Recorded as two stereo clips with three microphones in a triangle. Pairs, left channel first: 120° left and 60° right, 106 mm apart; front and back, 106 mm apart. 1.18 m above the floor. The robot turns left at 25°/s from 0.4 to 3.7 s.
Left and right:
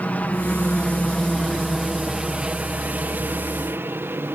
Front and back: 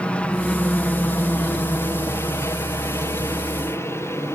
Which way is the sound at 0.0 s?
60° left.